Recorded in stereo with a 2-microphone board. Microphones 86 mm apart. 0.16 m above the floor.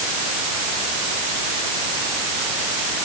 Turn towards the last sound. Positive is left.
No sound to turn to.